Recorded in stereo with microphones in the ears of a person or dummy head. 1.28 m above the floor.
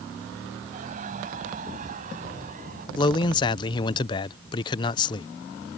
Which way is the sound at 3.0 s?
30° left (ahead or behind).